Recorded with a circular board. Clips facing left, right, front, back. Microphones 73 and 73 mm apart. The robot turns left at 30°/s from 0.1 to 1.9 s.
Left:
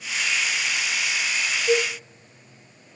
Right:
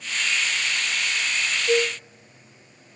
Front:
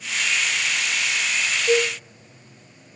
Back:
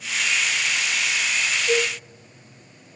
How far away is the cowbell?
About 1.6 m.